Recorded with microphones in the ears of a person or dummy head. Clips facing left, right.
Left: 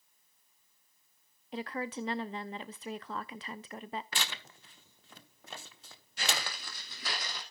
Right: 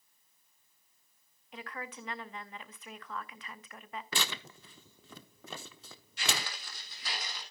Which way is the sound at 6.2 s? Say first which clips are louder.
Left 1 dB; 40° left (ahead or behind).